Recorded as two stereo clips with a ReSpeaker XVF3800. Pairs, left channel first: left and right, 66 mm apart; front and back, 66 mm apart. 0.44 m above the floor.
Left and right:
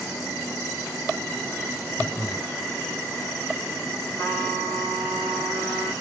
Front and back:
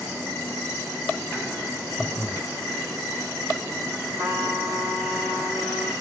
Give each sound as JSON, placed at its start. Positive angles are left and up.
{"t": 2.0, "sound": "breathing", "azimuth_deg": 45, "distance_m": 1.2}
{"t": 4.2, "sound": "a trumpet", "azimuth_deg": 130, "distance_m": 1.8}